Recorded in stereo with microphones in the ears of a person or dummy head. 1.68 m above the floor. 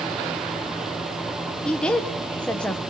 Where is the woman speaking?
Centre (ahead or behind), 1.4 m.